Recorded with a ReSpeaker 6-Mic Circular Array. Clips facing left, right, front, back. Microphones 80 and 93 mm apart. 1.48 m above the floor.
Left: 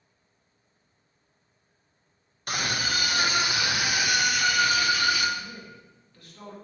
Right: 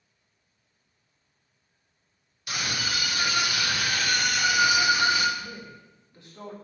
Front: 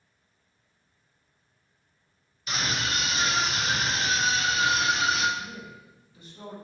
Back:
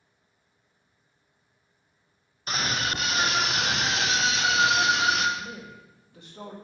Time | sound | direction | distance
2.5 | a scream | 135° left | 1.8 m
5.4 | a man speaking | 155° right | 2 m